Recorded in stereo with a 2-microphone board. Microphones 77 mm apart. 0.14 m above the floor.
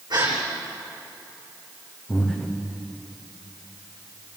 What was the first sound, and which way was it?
A gasp, 70° right (ahead or behind).